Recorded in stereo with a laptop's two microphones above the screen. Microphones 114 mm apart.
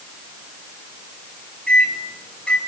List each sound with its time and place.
1.7 s a microwave: 10° left (ahead or behind), 3.5 m